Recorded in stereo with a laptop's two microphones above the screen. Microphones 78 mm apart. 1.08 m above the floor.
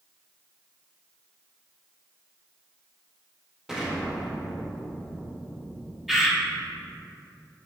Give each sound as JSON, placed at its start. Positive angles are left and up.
{"t": 3.7, "sound": "an explosion", "side_deg": -5, "distance_m": 0.9}
{"t": 6.1, "sound": "a bird", "side_deg": -5, "distance_m": 0.7}